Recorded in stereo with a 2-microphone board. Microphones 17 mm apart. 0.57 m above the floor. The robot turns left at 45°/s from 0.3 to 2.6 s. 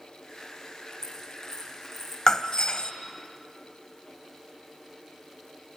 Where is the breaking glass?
30° left (ahead or behind), 1.4 m; by 2.9 s 45° left (ahead or behind), 1.4 m.